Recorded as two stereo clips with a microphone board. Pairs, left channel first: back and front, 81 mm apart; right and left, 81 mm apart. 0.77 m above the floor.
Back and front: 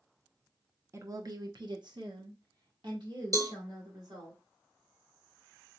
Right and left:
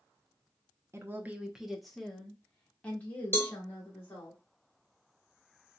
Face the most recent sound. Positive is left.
turn(degrees=-35)